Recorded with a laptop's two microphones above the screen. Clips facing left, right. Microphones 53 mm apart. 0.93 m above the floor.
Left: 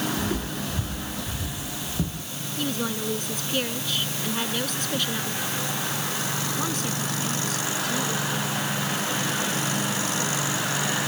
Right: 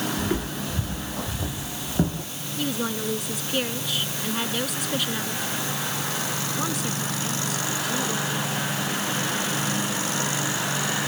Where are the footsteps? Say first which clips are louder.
Right 1 dB; 20° right (ahead or behind); by 2.3 s 45° right (ahead or behind).